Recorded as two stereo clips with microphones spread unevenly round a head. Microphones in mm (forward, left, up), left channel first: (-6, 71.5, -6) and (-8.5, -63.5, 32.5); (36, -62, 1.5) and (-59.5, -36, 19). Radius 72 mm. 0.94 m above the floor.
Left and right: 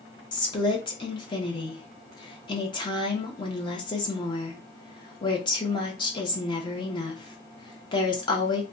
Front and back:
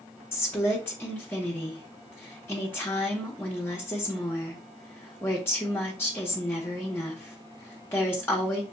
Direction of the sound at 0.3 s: 50° left.